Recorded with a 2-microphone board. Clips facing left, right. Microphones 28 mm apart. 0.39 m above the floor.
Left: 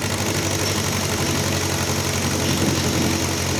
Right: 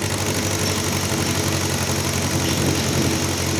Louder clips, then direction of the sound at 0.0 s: Even; centre (ahead or behind).